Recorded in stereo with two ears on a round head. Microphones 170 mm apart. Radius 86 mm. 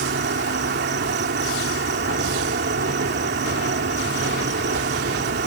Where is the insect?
60° right (ahead or behind).